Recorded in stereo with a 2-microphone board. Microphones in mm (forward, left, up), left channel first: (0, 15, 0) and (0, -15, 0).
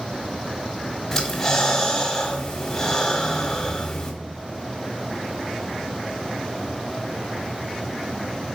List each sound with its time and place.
1.1 s breathing: 15° left (ahead or behind), 1.5 m